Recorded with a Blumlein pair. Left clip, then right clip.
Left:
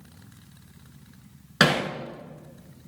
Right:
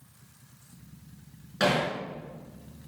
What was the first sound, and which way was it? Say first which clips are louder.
Hammering: left 4 dB; 35° left.